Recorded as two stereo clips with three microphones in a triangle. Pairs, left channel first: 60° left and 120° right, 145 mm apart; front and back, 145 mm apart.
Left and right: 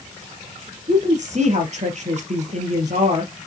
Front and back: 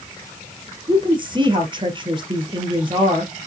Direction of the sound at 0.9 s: 130° right.